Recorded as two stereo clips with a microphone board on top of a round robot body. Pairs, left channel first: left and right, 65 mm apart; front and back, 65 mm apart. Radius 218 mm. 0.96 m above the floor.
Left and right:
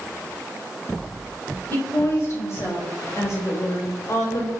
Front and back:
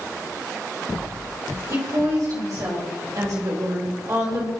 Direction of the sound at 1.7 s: 145° left.